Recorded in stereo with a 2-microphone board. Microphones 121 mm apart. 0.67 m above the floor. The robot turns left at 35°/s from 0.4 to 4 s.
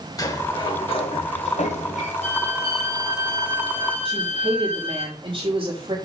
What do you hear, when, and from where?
0.2 s a sliding door: 150° left, 1.2 m; by 2.1 s 90° left, 1.2 m
2.2 s a violin: 70° left, 5 m; by 5.0 s 5° left, 5 m
4.0 s a woman speaking: 45° right (ahead or behind), 4 m